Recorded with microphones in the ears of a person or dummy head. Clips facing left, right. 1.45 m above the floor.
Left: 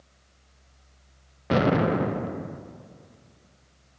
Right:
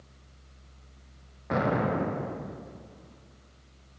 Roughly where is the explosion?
Left.